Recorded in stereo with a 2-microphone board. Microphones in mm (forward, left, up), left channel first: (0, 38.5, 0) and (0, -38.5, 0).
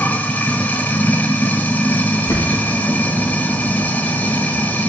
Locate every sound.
0.0 s running water: 25° left (ahead or behind), 1.0 m
2.1 s a bird: 50° left (ahead or behind), 4 m